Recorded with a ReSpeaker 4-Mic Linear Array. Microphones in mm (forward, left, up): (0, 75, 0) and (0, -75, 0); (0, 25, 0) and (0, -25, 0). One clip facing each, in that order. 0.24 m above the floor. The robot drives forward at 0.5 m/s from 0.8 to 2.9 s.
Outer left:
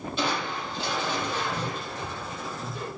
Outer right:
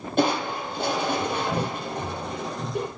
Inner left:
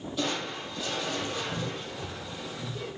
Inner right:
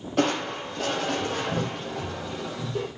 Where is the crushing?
55° right (ahead or behind), 4.5 m; by 2.9 s 65° right (ahead or behind), 4 m.